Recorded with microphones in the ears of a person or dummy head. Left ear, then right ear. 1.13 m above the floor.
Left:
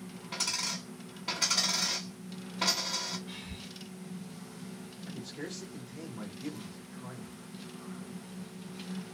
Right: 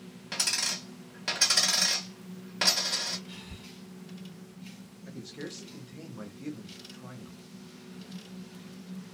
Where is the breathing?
15° left (ahead or behind), 1.0 m.